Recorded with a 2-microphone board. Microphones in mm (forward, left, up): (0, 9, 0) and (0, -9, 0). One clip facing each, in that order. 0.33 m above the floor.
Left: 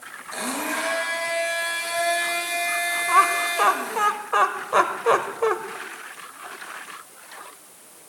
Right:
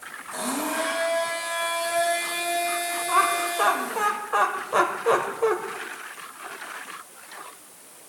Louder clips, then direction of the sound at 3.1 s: Left 3 dB; 20° left (ahead or behind).